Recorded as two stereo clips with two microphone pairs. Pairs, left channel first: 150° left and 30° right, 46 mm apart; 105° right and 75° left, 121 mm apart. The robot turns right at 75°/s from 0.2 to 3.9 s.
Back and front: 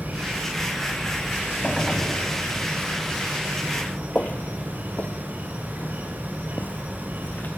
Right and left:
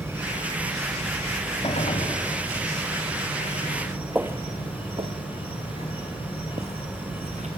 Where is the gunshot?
140° right, 2.5 m; by 2.2 s 100° right, 2.5 m.